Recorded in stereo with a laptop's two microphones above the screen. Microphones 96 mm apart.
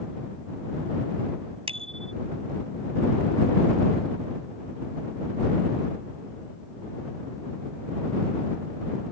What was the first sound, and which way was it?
A bicycle bell, 85° right.